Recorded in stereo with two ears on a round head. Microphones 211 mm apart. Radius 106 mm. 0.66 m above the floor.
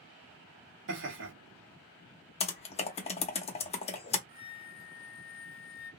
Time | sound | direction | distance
0.9 | laughter | 55° right (ahead or behind) | 1.8 m
2.4 | typing on a keyboard | 25° left (ahead or behind) | 0.7 m
4.3 | a flute | 40° right (ahead or behind) | 1.3 m